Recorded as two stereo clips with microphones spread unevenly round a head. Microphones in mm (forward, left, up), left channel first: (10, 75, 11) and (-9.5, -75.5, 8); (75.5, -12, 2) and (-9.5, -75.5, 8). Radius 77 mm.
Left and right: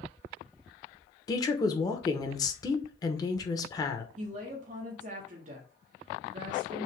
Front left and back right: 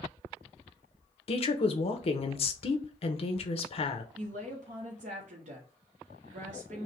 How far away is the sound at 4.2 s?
About 0.9 m.